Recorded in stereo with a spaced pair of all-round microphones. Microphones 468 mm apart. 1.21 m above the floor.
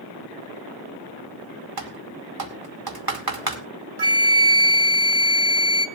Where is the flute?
55° right (ahead or behind), 1.2 m.